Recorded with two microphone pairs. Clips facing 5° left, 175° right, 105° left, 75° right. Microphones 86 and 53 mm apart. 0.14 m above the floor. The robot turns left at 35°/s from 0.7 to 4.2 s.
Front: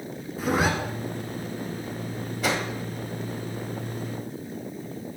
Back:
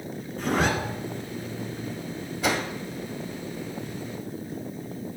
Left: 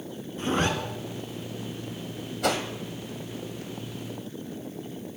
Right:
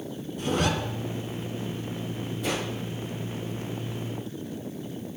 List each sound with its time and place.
0.4 s a zipper: 85° left, 1.9 m
2.4 s a whoosh: 95° left, 1.7 m; by 2.6 s 85° left, 1.7 m